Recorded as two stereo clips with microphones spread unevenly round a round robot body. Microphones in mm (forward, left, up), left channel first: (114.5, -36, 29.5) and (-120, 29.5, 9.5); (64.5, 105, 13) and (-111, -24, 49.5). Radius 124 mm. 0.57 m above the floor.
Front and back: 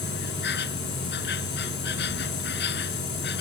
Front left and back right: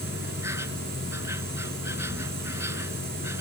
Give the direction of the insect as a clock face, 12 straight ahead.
2 o'clock.